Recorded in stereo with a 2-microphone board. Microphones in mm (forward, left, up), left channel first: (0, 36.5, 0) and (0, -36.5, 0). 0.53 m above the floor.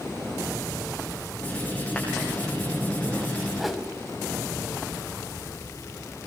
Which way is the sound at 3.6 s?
Centre (ahead or behind).